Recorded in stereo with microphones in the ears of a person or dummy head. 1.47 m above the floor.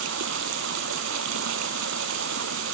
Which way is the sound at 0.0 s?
75° right (ahead or behind).